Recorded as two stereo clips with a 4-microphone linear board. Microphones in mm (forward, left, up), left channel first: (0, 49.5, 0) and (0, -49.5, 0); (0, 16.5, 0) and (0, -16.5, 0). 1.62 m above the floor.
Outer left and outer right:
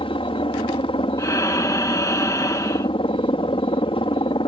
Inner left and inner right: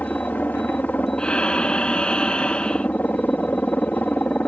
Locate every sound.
0.0 s a helicopter: 65° left (ahead or behind)
1.2 s breathing: 35° left (ahead or behind)